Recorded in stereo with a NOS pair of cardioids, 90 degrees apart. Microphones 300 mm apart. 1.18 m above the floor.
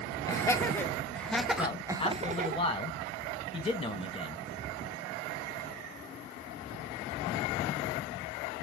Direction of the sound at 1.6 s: 15° left.